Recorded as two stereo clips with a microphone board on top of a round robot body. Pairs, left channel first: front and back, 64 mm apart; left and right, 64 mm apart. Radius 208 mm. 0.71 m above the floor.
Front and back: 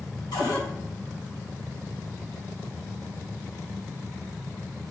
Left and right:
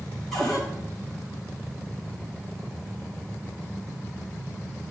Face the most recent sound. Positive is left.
turn(degrees=5)